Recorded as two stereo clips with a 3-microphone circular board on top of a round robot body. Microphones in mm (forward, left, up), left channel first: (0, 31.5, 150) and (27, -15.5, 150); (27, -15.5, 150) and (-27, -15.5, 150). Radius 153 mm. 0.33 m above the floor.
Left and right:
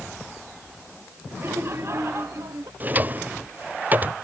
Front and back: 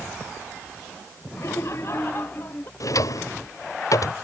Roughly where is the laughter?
Ahead.